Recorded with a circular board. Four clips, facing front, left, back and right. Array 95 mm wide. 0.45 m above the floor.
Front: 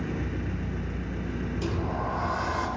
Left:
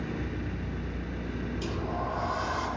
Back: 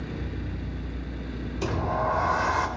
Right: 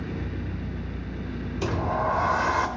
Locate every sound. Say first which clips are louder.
0.0 s an engine running: right 1 dB, front 3 dB; 20° left, 0.8 m
1.6 s a sliding door: right 9 dB, back 6 dB; 125° right, 0.8 m